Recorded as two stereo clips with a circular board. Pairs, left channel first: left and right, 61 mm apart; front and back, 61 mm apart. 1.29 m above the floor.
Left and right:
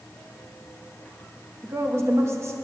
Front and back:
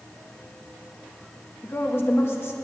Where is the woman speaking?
50° right, 1.5 m.